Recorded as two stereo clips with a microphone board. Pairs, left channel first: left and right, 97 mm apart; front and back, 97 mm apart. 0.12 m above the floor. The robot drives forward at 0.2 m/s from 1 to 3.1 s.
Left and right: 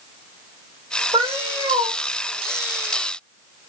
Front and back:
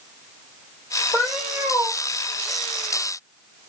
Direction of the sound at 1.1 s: 100° right.